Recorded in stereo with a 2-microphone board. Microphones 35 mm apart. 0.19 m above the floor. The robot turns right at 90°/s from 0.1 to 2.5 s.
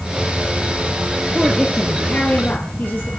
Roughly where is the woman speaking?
Ahead right.